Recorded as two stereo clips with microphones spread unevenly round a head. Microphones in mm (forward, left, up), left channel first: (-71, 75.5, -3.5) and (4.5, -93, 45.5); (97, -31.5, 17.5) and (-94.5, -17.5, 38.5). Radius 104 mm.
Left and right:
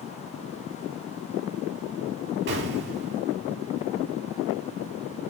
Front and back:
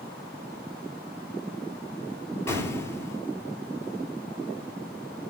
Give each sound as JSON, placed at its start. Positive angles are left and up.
{"t": 2.5, "sound": "an explosion", "azimuth_deg": -85, "distance_m": 3.5}